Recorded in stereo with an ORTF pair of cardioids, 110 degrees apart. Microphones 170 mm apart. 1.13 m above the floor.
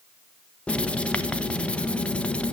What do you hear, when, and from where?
0.7 s writing: 5° left, 0.9 m